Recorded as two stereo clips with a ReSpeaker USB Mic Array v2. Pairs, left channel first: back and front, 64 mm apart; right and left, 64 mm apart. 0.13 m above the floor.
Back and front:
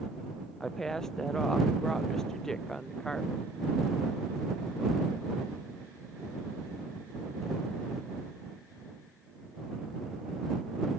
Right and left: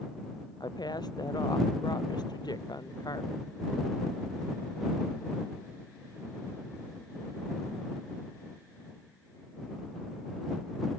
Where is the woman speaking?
95° right.